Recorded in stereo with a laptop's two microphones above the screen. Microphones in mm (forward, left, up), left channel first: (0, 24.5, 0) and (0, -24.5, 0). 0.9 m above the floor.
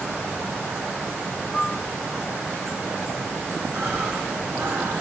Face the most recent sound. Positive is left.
turn(degrees=-75)  # may be behind; listen again after turning